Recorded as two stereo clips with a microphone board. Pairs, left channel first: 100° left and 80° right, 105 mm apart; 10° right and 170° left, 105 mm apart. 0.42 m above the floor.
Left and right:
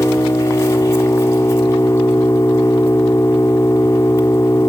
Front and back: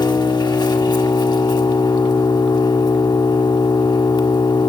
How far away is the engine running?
About 1.6 m.